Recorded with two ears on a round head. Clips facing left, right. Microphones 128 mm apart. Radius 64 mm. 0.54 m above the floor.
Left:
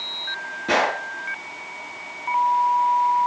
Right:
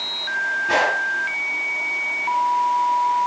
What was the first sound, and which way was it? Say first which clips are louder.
A gunshot: even; 75° left (ahead or behind).